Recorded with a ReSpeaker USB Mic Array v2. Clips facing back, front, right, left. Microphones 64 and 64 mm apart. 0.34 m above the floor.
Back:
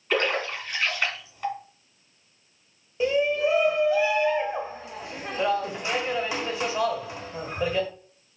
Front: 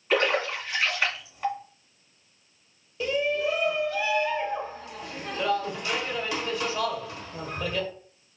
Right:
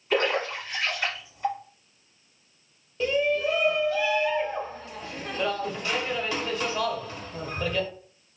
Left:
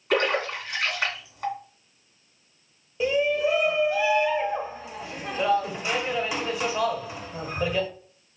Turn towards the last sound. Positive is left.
turn(degrees=145)